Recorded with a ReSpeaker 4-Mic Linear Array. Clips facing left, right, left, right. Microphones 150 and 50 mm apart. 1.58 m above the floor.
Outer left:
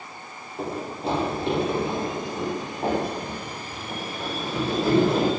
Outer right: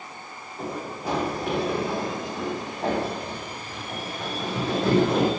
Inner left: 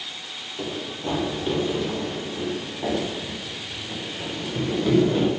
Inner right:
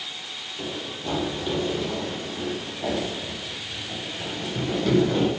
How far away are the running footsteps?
About 4 m.